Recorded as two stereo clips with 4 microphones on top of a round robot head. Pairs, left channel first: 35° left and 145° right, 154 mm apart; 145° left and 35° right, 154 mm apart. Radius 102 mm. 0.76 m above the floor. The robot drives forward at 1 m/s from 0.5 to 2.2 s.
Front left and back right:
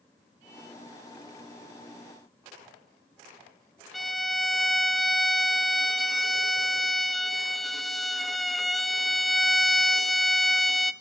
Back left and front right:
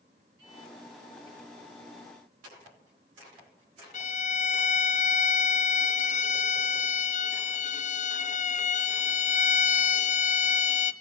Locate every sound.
3.9 s a violin: 125° left, 1.2 m